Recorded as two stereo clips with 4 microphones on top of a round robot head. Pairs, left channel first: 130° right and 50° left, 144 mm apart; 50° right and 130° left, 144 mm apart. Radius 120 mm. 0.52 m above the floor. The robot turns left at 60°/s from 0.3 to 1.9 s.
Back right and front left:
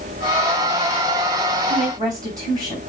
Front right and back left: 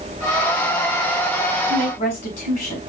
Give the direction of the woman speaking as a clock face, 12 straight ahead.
12 o'clock.